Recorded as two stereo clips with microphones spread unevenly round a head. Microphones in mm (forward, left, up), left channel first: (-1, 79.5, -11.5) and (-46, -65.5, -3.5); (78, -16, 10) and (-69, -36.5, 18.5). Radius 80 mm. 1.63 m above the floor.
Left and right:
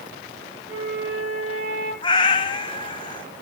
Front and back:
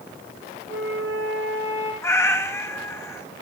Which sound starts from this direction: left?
A cat meowing, at 2.0 s.